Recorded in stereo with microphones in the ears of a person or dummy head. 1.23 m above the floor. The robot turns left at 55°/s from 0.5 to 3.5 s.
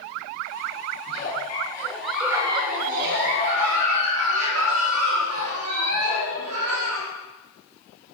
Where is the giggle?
55° left, 1.5 m; by 7.1 s 80° right, 1.5 m.